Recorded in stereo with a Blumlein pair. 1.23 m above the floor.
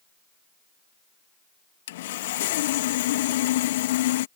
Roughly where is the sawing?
Ahead left.